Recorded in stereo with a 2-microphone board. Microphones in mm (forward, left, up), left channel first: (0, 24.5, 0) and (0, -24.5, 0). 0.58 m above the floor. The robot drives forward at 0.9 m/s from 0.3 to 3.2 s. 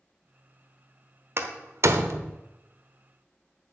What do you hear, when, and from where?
1.4 s a door slam: 50° right (ahead or behind), 1.2 m; by 2.4 s 70° right (ahead or behind), 1.0 m